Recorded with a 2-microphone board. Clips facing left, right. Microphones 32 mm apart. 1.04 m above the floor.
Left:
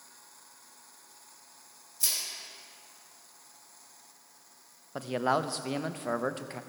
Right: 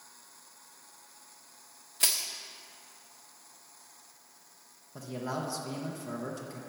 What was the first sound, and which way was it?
Crushing, 60° right (ahead or behind).